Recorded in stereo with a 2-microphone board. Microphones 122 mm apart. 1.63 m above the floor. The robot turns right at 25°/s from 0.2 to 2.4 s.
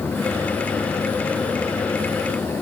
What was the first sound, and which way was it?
Only background noise.